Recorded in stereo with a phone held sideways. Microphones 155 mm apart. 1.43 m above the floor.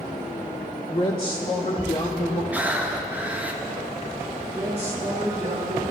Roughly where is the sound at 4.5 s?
Right.